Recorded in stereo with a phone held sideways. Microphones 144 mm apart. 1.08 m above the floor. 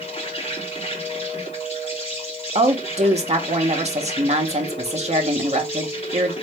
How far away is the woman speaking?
About 1.0 m.